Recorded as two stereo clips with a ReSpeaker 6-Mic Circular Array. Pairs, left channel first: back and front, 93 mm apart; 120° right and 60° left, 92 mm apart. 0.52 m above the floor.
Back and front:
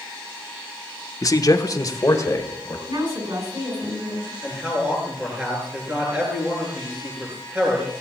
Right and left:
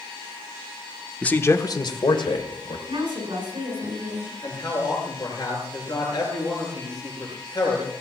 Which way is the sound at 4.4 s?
75° right.